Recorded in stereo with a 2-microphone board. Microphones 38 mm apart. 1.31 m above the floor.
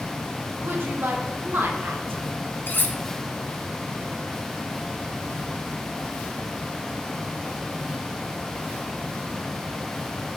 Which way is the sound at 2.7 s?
60° left (ahead or behind).